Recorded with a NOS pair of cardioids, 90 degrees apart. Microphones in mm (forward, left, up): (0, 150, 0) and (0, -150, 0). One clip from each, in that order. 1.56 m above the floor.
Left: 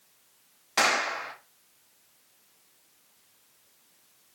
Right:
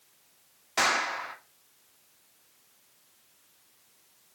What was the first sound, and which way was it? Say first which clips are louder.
A clap: left 1 dB; 20° left.